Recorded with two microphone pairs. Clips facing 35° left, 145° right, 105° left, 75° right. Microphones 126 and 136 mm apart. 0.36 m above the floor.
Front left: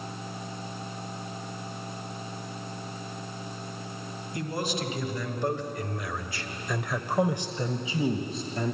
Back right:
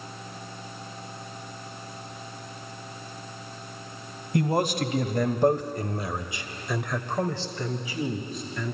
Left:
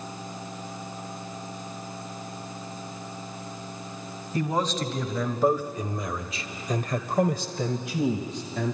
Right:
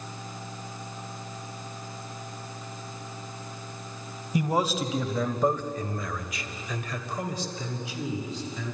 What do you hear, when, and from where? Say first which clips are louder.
4.3 s a man speaking: back right 8 dB, right 1 dB; 145° right, 1.8 m; by 8.8 s 85° left, 1.9 m